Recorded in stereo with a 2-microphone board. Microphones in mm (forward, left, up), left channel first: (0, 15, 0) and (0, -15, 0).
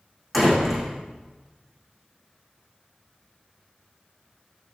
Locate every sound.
0.3 s a door slam: 5° right (ahead or behind), 6 m